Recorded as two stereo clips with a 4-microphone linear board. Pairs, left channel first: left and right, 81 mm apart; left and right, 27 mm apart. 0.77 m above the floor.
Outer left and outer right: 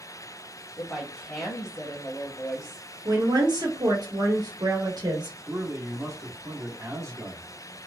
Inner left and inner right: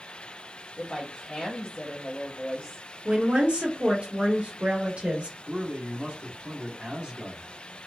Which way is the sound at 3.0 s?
60° right (ahead or behind).